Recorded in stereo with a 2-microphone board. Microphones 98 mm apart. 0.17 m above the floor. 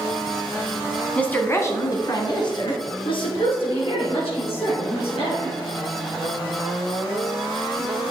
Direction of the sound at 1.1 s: 10° left (ahead or behind).